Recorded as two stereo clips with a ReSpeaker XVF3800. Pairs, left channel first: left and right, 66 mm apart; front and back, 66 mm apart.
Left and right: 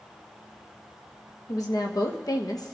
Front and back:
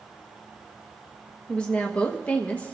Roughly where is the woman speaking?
Left.